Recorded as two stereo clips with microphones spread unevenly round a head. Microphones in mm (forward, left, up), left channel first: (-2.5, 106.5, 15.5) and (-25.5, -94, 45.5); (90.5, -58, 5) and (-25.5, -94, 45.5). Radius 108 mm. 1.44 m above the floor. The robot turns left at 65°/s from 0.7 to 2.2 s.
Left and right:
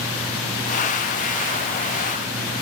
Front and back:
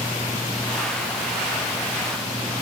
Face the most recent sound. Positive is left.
No sound to turn to.